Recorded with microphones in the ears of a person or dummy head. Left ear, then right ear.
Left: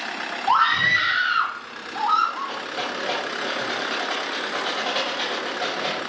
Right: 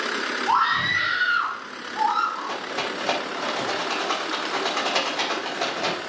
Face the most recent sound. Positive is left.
turn(degrees=-65)  # may be behind; listen again after turning